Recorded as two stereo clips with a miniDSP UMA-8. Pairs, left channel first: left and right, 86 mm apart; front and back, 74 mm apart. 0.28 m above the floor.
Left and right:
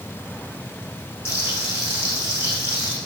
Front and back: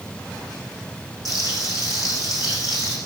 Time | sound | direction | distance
1.2 | frying | 30° left | 9 m